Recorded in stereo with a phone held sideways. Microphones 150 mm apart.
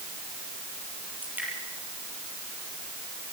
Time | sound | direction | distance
1.2 | dripping | 10° right (ahead or behind) | 6.5 m